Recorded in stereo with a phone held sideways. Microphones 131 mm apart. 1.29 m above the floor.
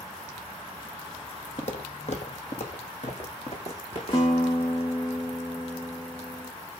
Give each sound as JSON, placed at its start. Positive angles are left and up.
{"t": 1.6, "sound": "footsteps", "side_deg": 60, "distance_m": 2.5}
{"t": 4.1, "sound": "a guitar", "side_deg": 40, "distance_m": 2.0}